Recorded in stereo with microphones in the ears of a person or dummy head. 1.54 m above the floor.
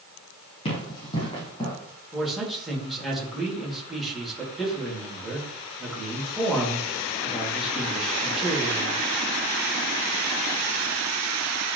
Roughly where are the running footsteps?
Left.